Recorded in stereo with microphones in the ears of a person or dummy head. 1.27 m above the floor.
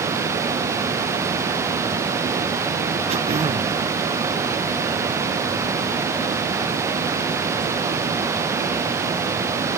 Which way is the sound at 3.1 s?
35° right (ahead or behind).